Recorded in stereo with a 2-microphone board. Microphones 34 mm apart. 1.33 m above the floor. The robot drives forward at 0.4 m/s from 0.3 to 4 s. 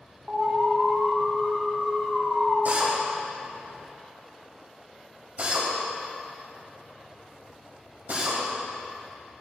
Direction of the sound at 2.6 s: 60° right (ahead or behind).